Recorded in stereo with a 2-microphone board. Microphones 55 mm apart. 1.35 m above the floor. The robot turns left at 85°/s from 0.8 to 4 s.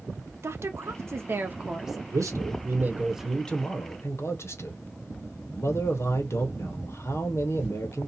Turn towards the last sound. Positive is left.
turn(degrees=120)